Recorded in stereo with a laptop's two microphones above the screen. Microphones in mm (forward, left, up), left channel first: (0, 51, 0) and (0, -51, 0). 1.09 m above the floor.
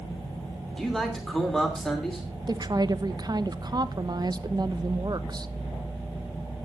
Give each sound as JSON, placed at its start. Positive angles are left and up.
{"t": 0.8, "sound": "a man speaking", "side_deg": 5, "distance_m": 2.5}
{"t": 2.5, "sound": "a woman speaking", "side_deg": -40, "distance_m": 0.9}